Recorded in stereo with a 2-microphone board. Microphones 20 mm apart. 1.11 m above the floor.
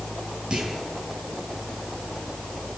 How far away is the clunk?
About 8.5 m.